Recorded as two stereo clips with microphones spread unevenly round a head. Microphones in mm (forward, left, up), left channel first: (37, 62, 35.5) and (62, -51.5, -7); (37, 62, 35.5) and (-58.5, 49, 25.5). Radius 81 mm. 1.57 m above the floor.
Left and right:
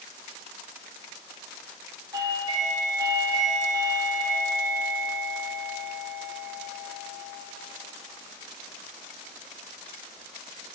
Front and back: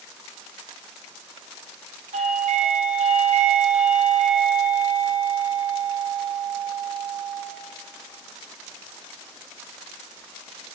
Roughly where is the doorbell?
Behind right.